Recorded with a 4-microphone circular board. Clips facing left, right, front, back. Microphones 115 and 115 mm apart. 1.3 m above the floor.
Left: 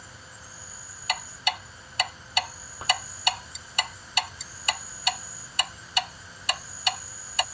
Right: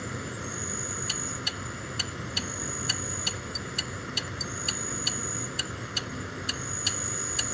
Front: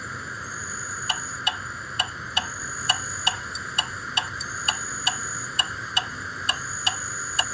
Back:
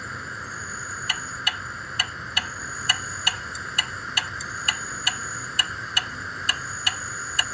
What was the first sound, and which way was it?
An insect, 90° right.